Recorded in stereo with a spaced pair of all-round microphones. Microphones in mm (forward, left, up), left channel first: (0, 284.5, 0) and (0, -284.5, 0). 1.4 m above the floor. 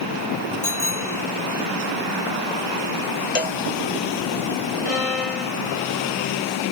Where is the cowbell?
65° left (ahead or behind).